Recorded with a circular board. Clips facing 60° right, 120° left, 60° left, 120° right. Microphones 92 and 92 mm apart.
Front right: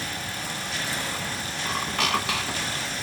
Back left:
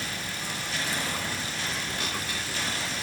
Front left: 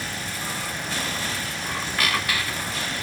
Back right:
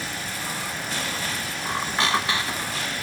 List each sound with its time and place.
1.6 s a squeak: 55° right, 0.9 m